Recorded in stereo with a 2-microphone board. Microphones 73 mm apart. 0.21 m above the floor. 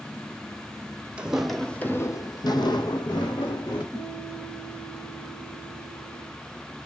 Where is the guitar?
20° left (ahead or behind), 1.8 m.